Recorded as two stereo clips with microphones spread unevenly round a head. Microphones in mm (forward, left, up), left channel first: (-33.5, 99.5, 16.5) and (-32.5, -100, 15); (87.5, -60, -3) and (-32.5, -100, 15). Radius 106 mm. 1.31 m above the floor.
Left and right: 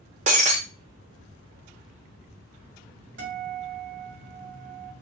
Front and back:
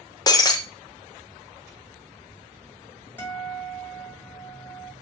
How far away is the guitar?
About 1.9 m.